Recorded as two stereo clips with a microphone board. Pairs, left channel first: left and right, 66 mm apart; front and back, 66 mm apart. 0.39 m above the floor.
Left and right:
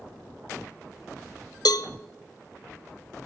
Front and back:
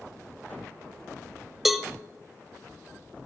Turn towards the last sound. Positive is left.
turn(degrees=90)